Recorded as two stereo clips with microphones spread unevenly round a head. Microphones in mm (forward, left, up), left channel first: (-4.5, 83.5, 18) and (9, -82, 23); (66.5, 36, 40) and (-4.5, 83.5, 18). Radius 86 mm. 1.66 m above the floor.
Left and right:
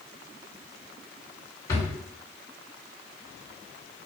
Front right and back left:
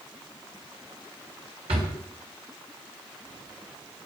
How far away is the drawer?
About 3 m.